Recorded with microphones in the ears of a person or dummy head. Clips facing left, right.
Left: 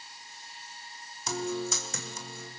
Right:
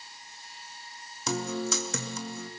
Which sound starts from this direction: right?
A guitar, at 1.3 s.